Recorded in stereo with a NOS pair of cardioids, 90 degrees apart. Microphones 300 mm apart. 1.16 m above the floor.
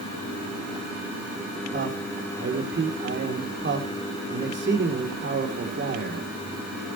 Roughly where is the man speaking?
Ahead right.